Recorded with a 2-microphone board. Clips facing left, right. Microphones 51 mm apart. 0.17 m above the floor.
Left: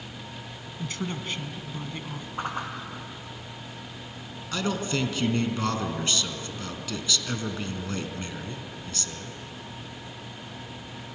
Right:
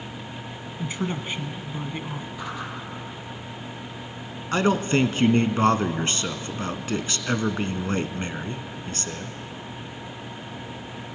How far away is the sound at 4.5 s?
About 1.4 m.